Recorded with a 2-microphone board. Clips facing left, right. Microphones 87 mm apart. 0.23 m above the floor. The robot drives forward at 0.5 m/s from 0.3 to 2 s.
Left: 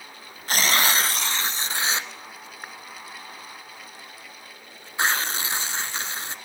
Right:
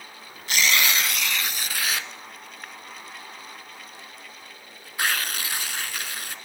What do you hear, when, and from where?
0.5 s tearing paper: 40° left (ahead or behind), 1.0 m; by 6.3 s 25° left (ahead or behind), 1.5 m